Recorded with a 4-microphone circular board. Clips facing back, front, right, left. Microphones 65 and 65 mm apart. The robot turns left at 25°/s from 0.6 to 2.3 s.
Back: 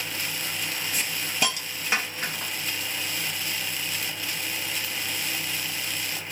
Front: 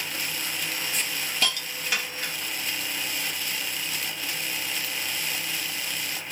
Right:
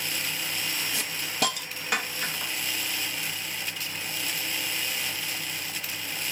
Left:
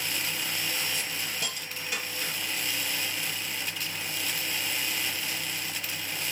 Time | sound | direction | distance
0.9 | a hiss | 95° right | 0.6 m